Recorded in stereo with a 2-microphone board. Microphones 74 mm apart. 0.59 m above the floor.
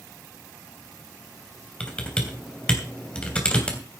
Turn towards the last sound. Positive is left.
turn(degrees=10)  # may be behind; listen again after turning